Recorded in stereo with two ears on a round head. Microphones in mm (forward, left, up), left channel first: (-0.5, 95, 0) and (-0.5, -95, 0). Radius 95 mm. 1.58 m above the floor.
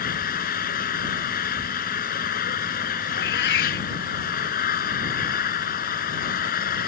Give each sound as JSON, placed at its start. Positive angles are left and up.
{"t": 0.0, "sound": "an engine running", "side_deg": 45}
{"t": 3.1, "sound": "a cat meowing", "side_deg": 55}